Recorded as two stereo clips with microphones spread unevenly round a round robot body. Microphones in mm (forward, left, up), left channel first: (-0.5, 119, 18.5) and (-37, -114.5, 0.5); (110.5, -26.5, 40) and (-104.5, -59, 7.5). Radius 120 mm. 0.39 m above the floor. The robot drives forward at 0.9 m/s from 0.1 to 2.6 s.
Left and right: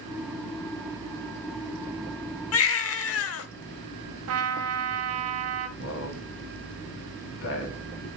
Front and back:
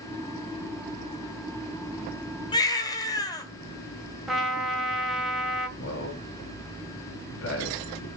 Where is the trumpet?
85° right, 1.8 m.